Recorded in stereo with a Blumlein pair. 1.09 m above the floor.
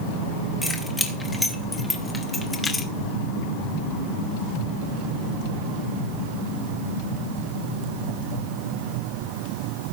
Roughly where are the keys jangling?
Ahead.